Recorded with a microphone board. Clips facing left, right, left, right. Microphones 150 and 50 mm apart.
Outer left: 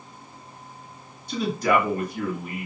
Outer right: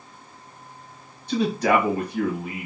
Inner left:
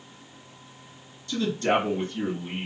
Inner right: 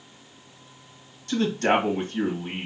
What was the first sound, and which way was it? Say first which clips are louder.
A man speaking: outer right 2 dB, inner right 2 dB; 60° right (ahead or behind).